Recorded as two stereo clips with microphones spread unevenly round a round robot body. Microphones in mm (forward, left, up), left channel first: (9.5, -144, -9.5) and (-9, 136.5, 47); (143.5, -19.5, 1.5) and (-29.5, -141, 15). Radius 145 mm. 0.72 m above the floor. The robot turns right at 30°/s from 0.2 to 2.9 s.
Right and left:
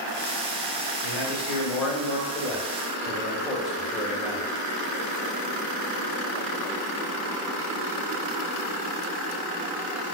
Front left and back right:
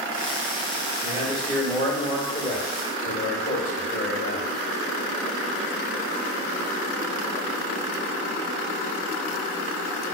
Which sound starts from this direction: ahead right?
A man speaking, at 1.0 s.